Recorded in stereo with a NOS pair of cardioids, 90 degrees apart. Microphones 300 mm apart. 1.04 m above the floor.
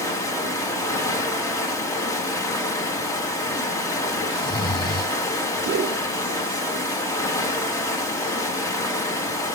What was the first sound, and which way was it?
Running water, 10° left.